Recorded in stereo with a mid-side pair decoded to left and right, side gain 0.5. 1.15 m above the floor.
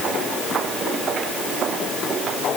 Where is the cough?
I don't hear a cough.